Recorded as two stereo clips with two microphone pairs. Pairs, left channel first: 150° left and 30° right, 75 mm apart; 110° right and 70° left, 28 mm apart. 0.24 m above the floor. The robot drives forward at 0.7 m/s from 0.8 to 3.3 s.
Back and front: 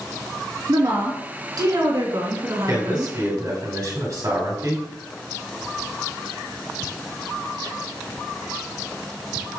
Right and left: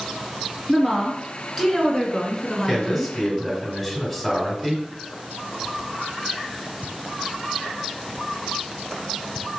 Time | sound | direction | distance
0.7 | a woman speaking | 15° right | 3 m
2.7 | a man speaking | 20° right | 2 m